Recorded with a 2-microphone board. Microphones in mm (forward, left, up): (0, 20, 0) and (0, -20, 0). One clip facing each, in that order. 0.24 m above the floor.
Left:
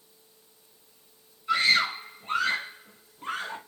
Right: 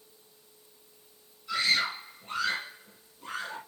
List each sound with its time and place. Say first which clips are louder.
1.5 s a scream: left 5 dB; 40° left (ahead or behind), 2.0 m